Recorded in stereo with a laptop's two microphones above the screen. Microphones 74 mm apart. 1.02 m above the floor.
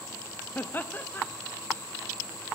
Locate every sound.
0.6 s laughter: 25° left (ahead or behind), 0.7 m